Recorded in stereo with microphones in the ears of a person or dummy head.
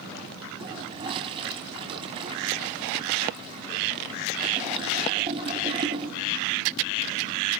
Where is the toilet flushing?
30° right (ahead or behind), 2 m.